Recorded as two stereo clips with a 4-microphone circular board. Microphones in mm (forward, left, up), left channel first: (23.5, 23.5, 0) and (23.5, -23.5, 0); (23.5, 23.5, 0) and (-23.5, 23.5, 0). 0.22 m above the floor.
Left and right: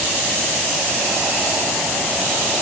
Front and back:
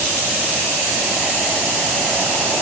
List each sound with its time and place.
Only background noise.